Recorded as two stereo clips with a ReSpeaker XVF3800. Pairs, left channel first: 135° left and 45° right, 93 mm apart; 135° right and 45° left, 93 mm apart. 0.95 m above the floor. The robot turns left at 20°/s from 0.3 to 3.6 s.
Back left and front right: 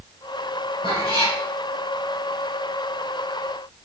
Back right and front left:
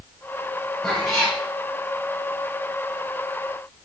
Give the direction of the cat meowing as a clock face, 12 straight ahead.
7 o'clock.